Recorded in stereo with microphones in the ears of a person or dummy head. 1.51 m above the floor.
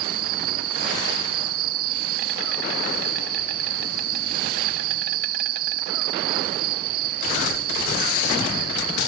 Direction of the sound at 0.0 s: 60° right (ahead or behind).